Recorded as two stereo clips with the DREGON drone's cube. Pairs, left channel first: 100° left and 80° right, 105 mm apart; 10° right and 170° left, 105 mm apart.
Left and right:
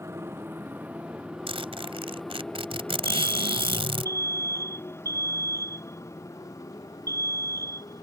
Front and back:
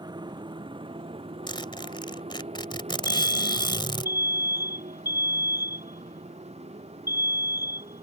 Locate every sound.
0.0 s a motorcycle: 145° right; by 8.0 s 155° left
1.5 s a zipper: 50° right
3.0 s an alarm: 40° left